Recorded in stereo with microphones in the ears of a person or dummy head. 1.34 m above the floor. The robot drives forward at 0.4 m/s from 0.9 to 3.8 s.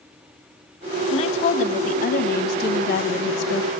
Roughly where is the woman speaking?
Left.